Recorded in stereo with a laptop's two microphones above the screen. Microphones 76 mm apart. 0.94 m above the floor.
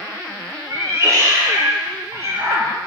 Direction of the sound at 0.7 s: 40° right (ahead or behind).